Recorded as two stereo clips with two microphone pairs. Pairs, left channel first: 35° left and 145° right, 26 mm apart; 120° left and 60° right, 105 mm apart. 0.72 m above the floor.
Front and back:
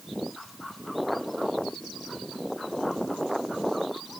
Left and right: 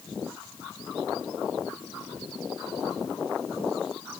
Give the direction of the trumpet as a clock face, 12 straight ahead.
I don't hear a trumpet.